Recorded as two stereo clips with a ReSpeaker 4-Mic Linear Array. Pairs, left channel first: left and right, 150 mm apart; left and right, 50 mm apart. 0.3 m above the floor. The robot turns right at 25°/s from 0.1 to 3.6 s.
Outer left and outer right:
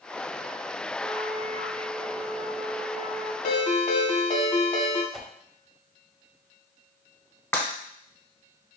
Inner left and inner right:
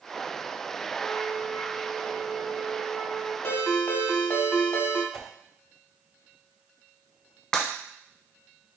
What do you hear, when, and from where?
1.0 s a flute: 40° left, 1.4 m; by 3.3 s 100° left, 1.4 m
3.4 s a ringtone: 50° left (ahead or behind), 0.9 m
5.1 s a whoosh: centre (ahead or behind), 0.7 m
7.5 s breaking glass: 15° left (ahead or behind), 0.9 m